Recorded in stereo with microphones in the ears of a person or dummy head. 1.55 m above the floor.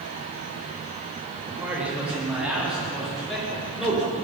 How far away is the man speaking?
About 3.5 m.